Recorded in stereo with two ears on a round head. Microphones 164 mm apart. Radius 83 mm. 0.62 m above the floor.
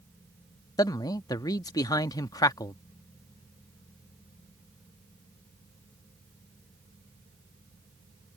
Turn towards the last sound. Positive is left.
turn(degrees=20)  # may be behind; listen again after turning